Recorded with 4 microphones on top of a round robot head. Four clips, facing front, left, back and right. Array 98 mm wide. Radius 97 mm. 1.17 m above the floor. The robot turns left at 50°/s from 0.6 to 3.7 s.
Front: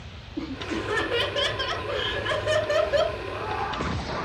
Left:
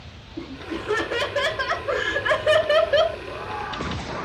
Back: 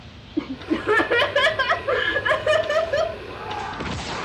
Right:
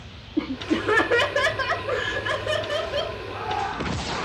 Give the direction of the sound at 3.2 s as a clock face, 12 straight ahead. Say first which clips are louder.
Right 3 dB, front 1 dB; 3 o'clock.